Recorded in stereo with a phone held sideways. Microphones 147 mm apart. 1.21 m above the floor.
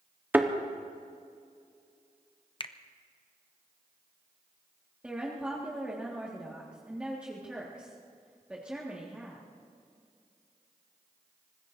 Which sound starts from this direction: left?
A finger snap, at 2.6 s.